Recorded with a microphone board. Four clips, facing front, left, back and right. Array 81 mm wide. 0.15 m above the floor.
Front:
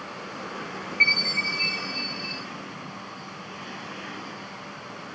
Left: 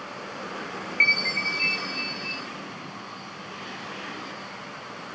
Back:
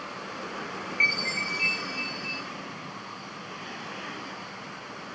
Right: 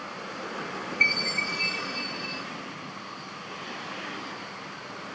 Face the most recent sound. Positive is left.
turn(degrees=90)